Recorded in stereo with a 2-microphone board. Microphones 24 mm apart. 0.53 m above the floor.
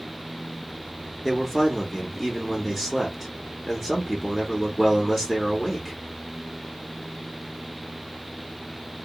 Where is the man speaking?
Centre (ahead or behind), 0.8 m.